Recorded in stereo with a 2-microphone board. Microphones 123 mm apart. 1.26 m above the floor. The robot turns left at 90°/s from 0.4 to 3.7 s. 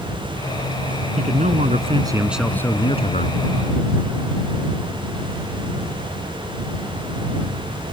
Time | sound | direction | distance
1.2 | a man speaking | 65° right | ?